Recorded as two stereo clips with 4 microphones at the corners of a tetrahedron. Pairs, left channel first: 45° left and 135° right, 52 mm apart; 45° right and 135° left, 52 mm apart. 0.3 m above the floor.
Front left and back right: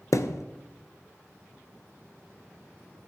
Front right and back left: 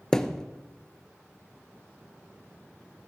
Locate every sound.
0.1 s a thud: 35° left, 0.6 m